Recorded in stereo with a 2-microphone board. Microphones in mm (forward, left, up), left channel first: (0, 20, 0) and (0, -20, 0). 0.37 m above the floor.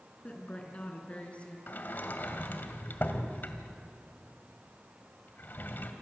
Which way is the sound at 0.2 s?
35° left (ahead or behind).